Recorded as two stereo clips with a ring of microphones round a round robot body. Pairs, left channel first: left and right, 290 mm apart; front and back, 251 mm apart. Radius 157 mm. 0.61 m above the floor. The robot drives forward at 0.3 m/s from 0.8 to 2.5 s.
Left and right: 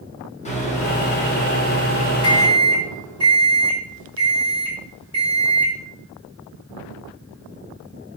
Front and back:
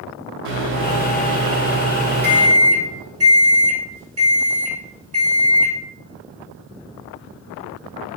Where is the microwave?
155° left, 1.2 m; by 5.8 s 165° left, 1.6 m.